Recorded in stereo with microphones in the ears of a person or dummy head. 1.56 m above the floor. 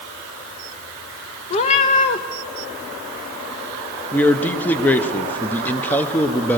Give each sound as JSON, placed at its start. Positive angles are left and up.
{"t": 1.5, "sound": "a cat meowing", "side_deg": 25, "distance_m": 0.7}
{"t": 4.1, "sound": "a man speaking", "side_deg": 10, "distance_m": 0.8}